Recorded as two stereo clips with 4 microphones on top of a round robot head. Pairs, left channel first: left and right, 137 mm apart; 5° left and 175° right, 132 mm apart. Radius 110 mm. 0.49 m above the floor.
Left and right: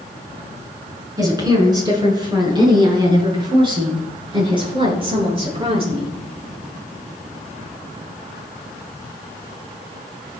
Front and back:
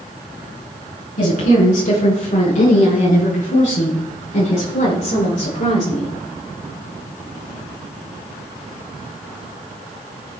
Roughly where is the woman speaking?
Ahead right.